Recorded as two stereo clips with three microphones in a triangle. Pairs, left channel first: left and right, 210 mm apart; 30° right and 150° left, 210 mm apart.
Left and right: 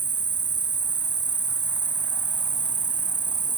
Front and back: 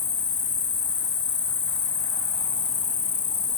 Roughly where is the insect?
Ahead right.